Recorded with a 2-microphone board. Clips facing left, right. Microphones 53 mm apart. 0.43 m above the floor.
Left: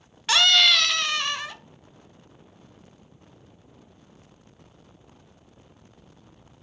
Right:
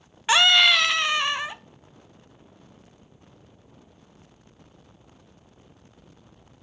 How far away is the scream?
About 0.7 m.